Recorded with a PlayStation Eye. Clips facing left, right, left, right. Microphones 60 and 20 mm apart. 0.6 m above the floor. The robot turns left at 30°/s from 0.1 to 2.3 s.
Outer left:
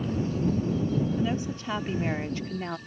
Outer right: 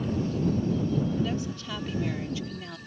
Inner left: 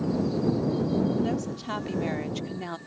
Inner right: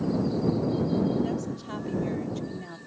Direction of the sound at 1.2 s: 155° left.